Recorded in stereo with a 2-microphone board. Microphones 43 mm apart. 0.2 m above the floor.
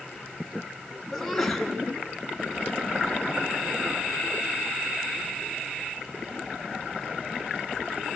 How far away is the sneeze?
About 2.5 m.